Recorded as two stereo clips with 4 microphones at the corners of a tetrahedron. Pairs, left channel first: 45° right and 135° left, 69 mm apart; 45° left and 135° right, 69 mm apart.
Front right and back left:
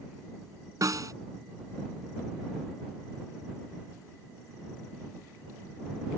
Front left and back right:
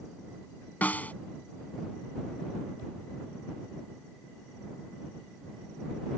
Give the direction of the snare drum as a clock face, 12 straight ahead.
8 o'clock.